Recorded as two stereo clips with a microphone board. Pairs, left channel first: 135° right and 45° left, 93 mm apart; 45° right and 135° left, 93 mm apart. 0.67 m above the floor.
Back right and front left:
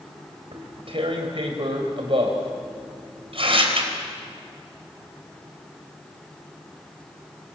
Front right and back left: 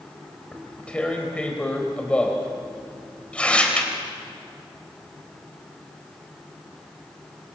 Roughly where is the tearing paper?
Ahead left.